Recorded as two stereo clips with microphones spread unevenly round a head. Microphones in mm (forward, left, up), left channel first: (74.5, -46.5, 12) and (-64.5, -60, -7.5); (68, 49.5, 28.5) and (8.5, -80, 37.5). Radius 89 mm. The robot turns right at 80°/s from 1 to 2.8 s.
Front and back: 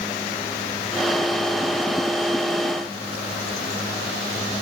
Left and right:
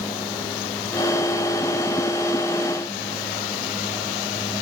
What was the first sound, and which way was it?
Only background noise.